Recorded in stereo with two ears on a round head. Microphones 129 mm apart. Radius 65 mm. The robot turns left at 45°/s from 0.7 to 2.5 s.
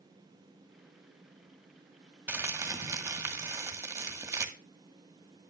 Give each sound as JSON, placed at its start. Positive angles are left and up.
{"t": 2.3, "sound": "crumpling", "side_deg": -15, "distance_m": 1.7}